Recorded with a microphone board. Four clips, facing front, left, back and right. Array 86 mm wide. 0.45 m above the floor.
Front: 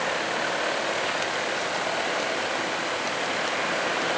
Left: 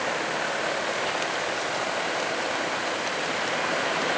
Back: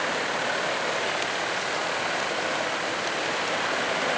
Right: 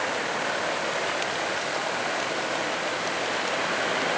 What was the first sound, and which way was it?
Only background noise.